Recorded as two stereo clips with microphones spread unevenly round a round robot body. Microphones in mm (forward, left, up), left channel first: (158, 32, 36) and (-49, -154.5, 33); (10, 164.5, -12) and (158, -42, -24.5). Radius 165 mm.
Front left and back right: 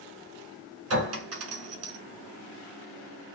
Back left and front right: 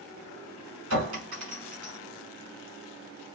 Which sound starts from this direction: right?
A clink, at 0.9 s.